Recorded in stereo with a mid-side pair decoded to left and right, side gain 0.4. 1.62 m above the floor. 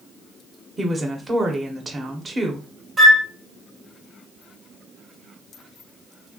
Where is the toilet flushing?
No toilet flushing in this recording.